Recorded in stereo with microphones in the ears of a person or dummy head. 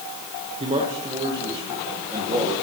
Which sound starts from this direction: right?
A man speaking, at 0.6 s.